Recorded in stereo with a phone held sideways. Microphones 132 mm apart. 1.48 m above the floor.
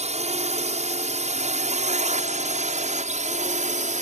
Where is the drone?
55° right (ahead or behind); by 4.0 s 60° right (ahead or behind).